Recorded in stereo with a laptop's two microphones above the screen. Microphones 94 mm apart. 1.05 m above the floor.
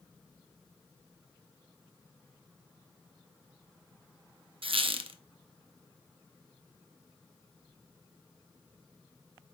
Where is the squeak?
70° right (ahead or behind), 0.8 m.